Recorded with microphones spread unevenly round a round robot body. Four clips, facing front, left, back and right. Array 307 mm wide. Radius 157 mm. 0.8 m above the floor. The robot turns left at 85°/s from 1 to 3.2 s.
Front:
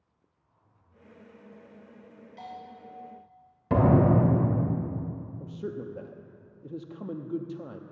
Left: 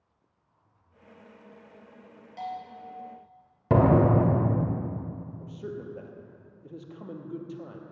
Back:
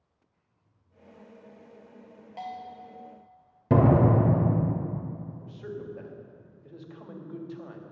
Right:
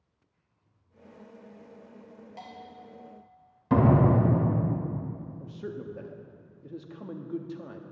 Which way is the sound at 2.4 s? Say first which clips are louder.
Left 9 dB, back 5 dB; 170° left.